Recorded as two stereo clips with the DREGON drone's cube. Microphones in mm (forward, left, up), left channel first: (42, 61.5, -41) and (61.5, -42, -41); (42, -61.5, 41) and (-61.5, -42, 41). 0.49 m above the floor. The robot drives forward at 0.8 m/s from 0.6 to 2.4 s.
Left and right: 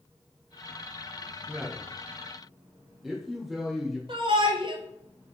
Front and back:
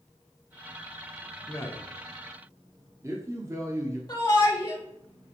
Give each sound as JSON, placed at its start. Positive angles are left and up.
{"t": 1.5, "sound": "a man speaking", "azimuth_deg": -10, "distance_m": 0.8}
{"t": 4.1, "sound": "a shout", "azimuth_deg": -65, "distance_m": 1.5}